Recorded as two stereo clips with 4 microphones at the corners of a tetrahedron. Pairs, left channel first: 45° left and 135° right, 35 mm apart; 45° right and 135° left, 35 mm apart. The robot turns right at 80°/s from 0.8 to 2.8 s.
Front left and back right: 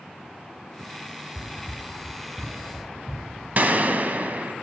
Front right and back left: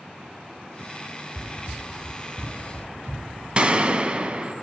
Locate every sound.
1.4 s running footsteps: 40° left, 2.5 m; by 3.5 s 165° left, 4.5 m
3.6 s a gunshot: 170° right, 0.6 m